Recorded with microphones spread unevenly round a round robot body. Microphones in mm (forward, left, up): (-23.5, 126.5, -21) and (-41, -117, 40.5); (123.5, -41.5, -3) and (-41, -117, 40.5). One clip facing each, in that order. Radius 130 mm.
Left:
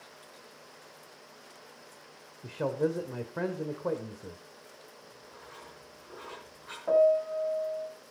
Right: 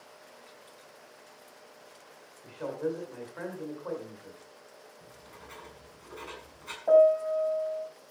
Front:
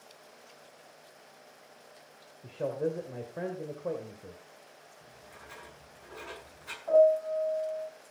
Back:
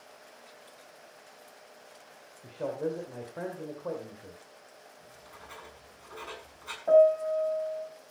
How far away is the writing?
About 6.5 m.